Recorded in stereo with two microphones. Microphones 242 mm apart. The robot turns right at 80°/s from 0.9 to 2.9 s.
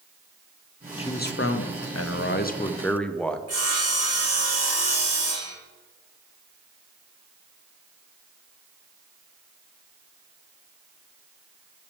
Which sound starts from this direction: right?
Sawing, at 3.5 s.